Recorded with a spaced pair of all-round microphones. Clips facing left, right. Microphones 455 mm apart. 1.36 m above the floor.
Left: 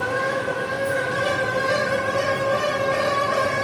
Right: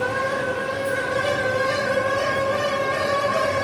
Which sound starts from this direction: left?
A fan, at 0.0 s.